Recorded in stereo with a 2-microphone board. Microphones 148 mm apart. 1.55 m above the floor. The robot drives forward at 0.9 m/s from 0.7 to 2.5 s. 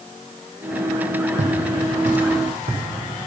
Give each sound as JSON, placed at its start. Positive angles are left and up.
{"t": 1.4, "sound": "footsteps", "side_deg": -50, "distance_m": 2.5}